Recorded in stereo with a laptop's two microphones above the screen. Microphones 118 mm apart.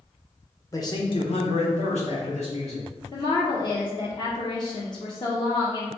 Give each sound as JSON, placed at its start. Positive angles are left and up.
{"t": 0.7, "sound": "a man speaking", "side_deg": 30, "distance_m": 0.9}
{"t": 3.1, "sound": "a woman speaking", "side_deg": 40, "distance_m": 0.7}